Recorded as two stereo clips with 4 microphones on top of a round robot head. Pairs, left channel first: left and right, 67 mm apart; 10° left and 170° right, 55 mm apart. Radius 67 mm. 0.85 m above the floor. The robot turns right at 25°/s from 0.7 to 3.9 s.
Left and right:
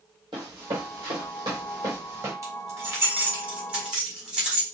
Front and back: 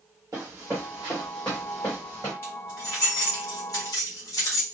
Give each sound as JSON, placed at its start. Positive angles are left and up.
{"t": 0.3, "sound": "running footsteps", "azimuth_deg": -110, "distance_m": 1.2}
{"t": 2.4, "sound": "keys jangling", "azimuth_deg": -50, "distance_m": 1.6}